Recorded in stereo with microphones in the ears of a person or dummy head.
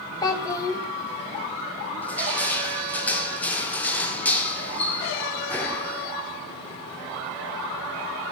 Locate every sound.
0.2 s a child speaking: 20° left (ahead or behind), 0.6 m
2.0 s crushing: 10° left (ahead or behind), 0.6 m